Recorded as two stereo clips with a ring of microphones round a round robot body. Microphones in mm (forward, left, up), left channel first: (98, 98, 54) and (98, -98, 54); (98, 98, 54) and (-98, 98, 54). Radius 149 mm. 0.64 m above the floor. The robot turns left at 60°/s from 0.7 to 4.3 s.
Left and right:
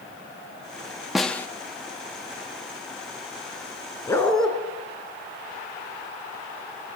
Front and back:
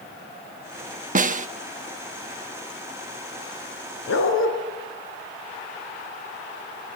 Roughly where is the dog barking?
Ahead.